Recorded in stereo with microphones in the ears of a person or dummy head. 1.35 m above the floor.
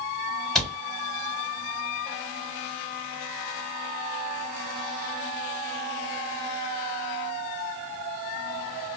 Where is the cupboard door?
5° left (ahead or behind), 0.7 m.